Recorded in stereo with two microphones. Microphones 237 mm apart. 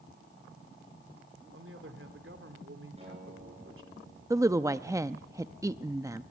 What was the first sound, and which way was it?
A man speaking, 55° right (ahead or behind).